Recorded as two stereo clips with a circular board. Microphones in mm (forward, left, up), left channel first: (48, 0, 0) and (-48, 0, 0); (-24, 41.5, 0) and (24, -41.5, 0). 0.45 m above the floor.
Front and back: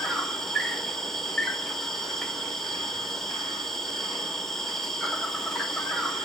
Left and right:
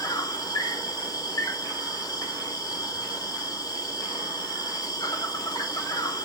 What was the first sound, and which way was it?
An insect, 85° left.